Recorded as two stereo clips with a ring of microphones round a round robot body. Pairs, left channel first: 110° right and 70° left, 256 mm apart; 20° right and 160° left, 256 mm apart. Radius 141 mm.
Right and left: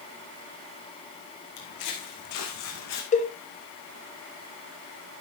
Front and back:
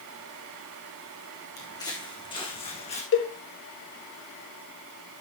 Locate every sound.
1.6 s footsteps: 100° right, 3.5 m; by 3.0 s 90° right, 3 m
3.1 s a cowbell: 55° right, 1.6 m